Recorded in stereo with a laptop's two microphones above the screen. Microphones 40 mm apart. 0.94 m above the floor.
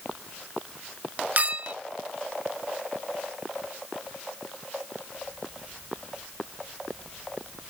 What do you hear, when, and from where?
1.4 s a clink: 45° right (ahead or behind)